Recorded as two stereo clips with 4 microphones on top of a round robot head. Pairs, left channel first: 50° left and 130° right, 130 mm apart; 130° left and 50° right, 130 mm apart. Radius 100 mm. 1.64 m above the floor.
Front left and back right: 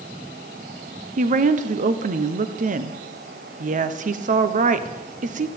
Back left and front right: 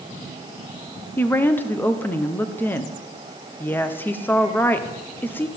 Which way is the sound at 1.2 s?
155° right.